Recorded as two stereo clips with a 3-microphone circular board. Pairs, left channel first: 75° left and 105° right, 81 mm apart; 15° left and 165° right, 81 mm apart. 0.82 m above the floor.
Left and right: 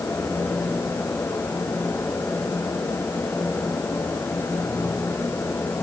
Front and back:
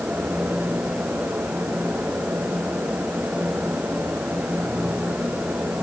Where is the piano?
No piano in this recording.